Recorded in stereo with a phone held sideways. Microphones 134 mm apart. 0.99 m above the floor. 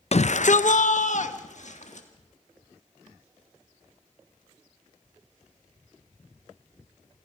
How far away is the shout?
About 0.5 m.